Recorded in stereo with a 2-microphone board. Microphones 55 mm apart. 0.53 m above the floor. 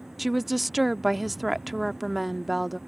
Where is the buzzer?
No buzzer in this recording.